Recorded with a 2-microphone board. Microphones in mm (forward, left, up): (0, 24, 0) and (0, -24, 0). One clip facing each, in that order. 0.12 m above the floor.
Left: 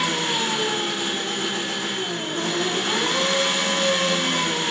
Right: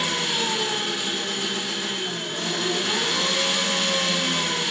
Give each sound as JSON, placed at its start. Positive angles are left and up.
{"t": 0.0, "sound": "an engine running", "side_deg": 40, "distance_m": 2.0}